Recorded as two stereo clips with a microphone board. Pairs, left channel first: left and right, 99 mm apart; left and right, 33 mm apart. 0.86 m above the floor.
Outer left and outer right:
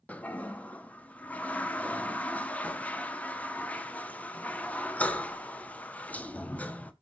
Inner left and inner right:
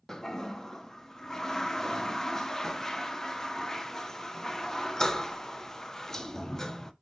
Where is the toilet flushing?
15° left (ahead or behind), 0.6 m.